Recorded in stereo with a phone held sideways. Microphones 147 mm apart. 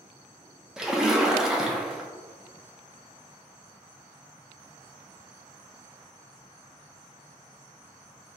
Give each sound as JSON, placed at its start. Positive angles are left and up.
{"t": 0.8, "sound": "a splash", "side_deg": -5, "distance_m": 0.5}